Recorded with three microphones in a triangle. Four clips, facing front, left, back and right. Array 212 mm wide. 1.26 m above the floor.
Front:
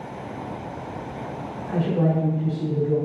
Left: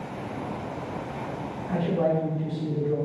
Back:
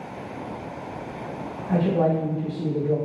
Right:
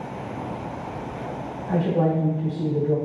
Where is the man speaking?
135° right, 2 m.